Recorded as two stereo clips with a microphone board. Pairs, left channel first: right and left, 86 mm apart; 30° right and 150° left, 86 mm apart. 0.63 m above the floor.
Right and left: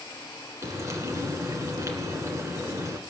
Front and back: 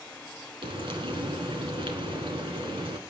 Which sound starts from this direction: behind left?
Frying, at 0.6 s.